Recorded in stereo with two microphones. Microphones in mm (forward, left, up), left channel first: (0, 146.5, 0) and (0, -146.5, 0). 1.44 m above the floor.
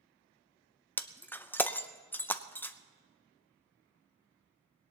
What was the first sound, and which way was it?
Breaking glass, 5° left (ahead or behind).